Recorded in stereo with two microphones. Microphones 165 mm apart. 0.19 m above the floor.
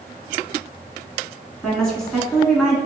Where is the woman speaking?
5° left (ahead or behind), 1.5 m.